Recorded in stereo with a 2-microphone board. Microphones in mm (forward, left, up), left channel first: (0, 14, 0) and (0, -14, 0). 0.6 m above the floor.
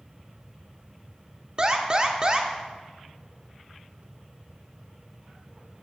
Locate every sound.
1.6 s an alarm: 30° right (ahead or behind), 0.7 m